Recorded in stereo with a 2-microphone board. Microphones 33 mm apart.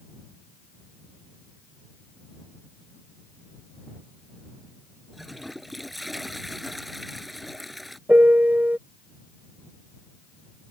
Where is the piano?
60° right (ahead or behind).